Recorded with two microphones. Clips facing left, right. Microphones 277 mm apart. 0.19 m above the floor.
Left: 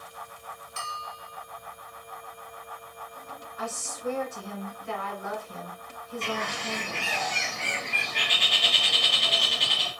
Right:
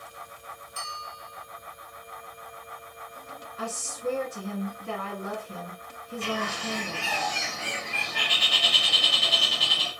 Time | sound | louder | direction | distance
0.8 | a bell | left 1 dB | 75° left (ahead or behind) | 0.7 m
3.6 | a woman speaking | right 2 dB | 40° right (ahead or behind) | 2 m
6.2 | a bird | right 3 dB | 5° right (ahead or behind) | 1.4 m